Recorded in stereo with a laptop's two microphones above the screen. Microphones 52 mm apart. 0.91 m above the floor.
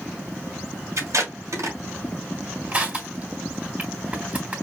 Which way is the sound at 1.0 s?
80° right.